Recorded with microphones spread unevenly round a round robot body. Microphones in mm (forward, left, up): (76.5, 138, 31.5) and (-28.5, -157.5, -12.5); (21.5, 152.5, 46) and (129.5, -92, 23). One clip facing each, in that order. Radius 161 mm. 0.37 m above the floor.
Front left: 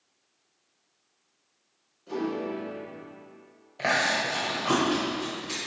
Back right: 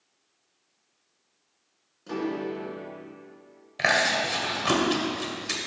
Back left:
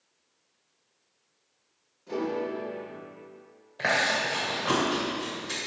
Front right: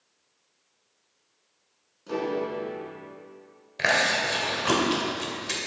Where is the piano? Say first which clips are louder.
Even, front right 1 dB; 110° right, 3 m.